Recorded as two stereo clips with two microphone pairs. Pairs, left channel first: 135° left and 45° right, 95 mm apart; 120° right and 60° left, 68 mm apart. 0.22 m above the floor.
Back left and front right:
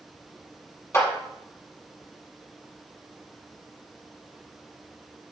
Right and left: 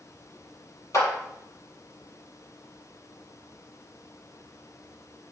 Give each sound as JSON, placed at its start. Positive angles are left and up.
{"t": 0.9, "sound": "a clap", "azimuth_deg": -160, "distance_m": 4.5}